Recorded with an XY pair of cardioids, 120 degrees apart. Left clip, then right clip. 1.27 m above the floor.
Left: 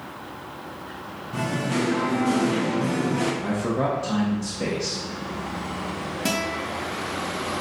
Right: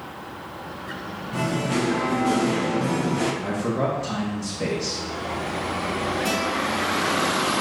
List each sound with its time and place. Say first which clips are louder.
1.3 s singing: right 1 dB; 10° right, 0.6 m
3.4 s a man speaking: even; 5° left, 0.9 m
6.2 s a guitar: left 2 dB; 40° left, 1.0 m